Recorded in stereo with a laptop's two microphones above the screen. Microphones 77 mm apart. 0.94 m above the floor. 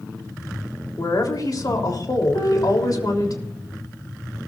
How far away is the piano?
About 4 m.